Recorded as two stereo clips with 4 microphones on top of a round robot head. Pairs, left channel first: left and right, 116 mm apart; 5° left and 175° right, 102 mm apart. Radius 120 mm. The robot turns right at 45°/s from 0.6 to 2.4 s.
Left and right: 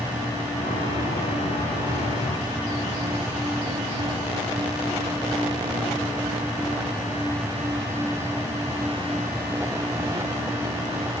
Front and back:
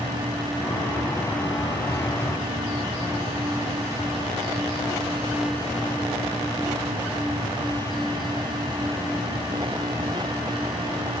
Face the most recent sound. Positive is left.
No sound to turn to.